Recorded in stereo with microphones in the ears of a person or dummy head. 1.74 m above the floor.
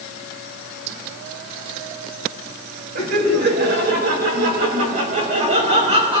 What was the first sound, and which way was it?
Laughter, 55° right (ahead or behind).